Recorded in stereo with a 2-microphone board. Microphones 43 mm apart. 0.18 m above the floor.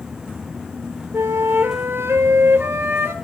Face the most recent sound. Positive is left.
turn(degrees=-75)  # may be behind; listen again after turning